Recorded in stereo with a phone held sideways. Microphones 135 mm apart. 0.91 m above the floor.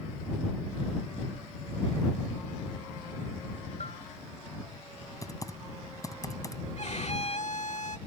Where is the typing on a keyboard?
25° left (ahead or behind).